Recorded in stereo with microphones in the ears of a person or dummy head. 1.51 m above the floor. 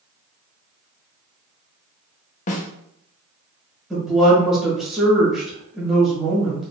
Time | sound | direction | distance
2.5 | a snare drum | 35° left (ahead or behind) | 0.7 m
3.9 | a woman speaking | 5° right (ahead or behind) | 1.6 m